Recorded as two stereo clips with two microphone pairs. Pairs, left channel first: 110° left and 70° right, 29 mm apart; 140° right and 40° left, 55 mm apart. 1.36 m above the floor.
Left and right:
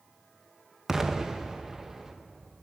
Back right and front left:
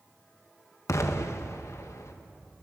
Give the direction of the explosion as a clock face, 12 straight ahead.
5 o'clock.